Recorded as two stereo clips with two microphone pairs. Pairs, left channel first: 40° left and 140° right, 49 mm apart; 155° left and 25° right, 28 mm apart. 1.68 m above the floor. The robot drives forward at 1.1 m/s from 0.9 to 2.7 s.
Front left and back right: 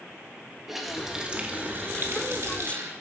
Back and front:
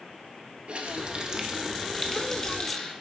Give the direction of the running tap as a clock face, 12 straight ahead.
2 o'clock.